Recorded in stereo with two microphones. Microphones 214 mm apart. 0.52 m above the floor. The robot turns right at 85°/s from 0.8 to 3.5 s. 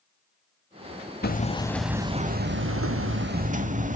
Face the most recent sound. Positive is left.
turn(degrees=-40)